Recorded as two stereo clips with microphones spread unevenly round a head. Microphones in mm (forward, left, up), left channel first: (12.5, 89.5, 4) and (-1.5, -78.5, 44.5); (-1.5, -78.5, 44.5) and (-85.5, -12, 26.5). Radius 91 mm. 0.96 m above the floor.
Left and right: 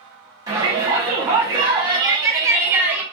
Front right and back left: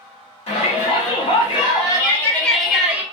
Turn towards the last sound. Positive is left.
turn(degrees=165)